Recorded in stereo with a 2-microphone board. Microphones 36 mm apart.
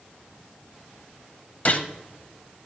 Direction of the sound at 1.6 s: 40° left (ahead or behind).